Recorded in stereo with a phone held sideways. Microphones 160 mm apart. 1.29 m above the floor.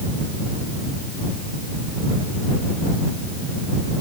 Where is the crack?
No crack in this recording.